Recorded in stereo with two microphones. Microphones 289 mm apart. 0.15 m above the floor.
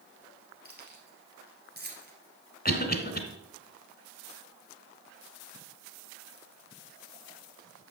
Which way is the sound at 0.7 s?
35° right (ahead or behind).